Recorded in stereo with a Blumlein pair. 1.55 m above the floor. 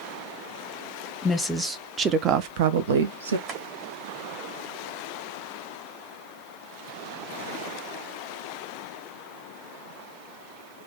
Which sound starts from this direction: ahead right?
Tapping, at 3.5 s.